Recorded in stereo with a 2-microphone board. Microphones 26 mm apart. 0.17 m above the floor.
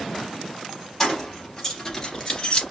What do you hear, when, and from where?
1.0 s keys jangling: 10° left (ahead or behind), 3 m; by 2.6 s 35° left (ahead or behind), 1.2 m